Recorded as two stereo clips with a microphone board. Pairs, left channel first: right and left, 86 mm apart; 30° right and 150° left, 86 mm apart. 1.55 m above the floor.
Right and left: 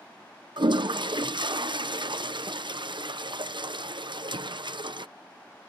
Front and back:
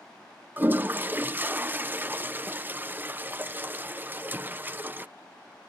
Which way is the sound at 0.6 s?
85° left.